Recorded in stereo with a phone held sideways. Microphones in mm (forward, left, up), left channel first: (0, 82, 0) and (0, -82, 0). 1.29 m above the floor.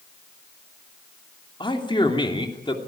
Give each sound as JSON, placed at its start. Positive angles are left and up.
{"t": 1.6, "sound": "a man speaking", "side_deg": 30, "distance_m": 3.0}